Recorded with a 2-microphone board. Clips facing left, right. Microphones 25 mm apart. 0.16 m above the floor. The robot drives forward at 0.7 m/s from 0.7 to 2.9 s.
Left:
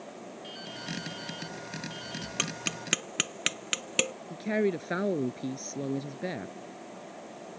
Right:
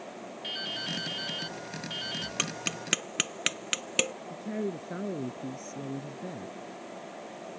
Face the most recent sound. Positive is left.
turn(degrees=60)  # may be behind; listen again after turning